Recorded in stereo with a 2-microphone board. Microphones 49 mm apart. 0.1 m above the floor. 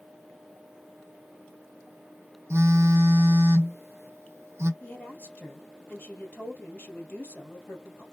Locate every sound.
2.5 s a phone buzzing: 65° right (ahead or behind), 0.8 m
4.8 s a woman speaking: 30° left (ahead or behind), 2 m